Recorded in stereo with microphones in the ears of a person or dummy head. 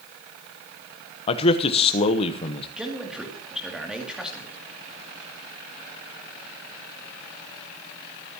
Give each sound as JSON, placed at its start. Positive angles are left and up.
{"t": 1.3, "sound": "a man speaking", "side_deg": 35, "distance_m": 1.0}
{"t": 2.8, "sound": "a man speaking", "side_deg": 0, "distance_m": 2.5}